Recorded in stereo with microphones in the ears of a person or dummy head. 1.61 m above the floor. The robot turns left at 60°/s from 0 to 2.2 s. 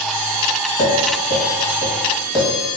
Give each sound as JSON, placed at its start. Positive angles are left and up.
{"t": 0.8, "sound": "tapping", "side_deg": 90, "distance_m": 1.4}